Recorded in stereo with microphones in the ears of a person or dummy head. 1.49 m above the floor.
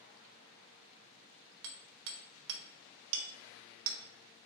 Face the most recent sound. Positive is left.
turn(degrees=-70)  # may be behind; listen again after turning